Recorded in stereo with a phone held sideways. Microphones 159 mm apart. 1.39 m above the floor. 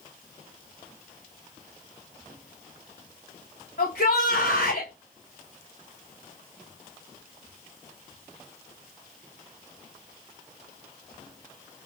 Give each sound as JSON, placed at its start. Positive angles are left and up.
{"t": 3.8, "sound": "a shout", "side_deg": 85, "distance_m": 1.7}